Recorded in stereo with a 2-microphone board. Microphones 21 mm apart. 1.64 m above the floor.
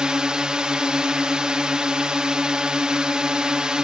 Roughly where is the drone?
Right.